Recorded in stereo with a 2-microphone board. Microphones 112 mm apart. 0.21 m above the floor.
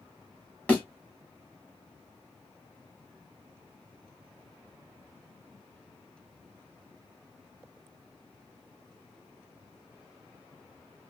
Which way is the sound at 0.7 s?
15° left (ahead or behind).